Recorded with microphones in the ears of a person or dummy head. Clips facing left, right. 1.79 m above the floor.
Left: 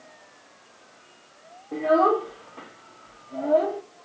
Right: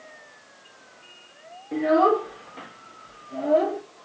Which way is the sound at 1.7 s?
30° right (ahead or behind).